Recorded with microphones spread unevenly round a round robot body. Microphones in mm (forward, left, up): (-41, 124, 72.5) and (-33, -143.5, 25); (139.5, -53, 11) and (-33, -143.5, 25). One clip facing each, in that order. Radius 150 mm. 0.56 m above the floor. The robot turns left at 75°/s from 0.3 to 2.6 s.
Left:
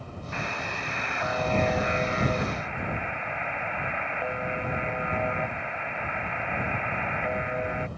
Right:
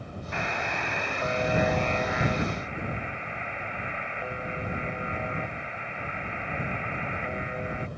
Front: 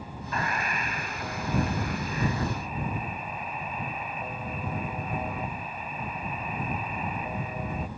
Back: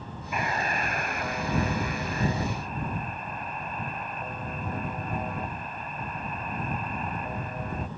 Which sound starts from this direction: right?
A buzzer, at 0.3 s.